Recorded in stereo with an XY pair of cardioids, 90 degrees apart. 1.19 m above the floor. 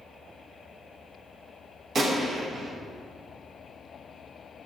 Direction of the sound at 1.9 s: 55° right.